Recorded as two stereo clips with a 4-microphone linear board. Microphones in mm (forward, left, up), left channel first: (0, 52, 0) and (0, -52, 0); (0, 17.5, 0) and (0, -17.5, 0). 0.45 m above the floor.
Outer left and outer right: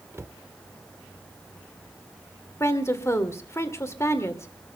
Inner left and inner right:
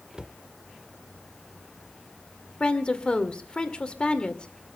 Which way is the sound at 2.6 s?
25° left (ahead or behind).